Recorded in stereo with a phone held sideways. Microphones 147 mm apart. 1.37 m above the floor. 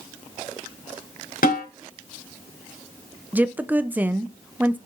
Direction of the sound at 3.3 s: 10° right (ahead or behind).